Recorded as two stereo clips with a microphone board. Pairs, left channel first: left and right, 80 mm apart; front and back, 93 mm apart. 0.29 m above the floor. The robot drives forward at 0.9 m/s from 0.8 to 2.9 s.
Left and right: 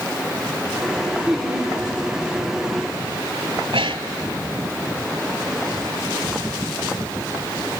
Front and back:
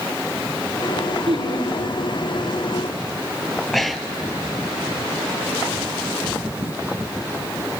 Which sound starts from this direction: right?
Breathing, at 3.6 s.